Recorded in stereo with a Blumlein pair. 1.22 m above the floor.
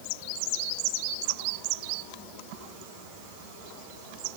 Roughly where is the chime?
I don't hear a chime.